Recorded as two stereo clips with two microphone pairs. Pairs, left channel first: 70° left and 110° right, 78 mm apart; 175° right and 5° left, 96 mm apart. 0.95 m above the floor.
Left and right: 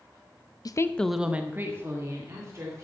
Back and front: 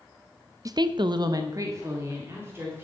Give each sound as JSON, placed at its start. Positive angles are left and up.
{"t": 0.7, "sound": "a woman speaking", "azimuth_deg": 50, "distance_m": 0.6}